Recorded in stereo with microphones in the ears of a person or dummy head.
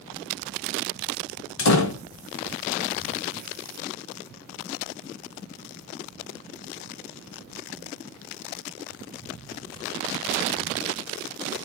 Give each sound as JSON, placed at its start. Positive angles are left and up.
{"t": 1.6, "sound": "a door slam", "side_deg": 75, "distance_m": 1.3}